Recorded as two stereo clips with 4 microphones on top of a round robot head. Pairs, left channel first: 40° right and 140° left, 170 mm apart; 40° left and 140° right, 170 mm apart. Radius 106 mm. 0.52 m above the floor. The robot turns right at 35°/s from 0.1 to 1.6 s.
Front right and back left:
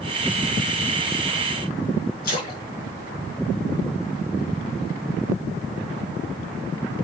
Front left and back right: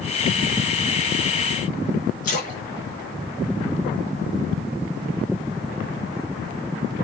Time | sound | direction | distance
2.2 | a splash | straight ahead | 4.5 m